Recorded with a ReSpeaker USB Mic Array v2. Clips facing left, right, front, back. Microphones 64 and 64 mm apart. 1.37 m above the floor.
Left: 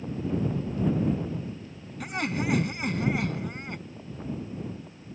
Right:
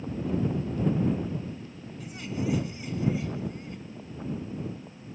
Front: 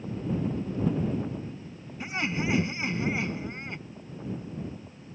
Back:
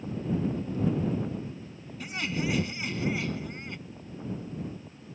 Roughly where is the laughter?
Ahead left.